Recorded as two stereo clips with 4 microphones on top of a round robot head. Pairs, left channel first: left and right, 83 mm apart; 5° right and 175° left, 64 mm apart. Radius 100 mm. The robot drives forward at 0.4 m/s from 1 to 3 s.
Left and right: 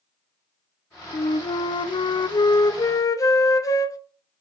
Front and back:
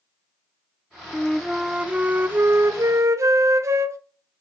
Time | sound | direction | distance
1.1 | a flute | 70° left | 0.6 m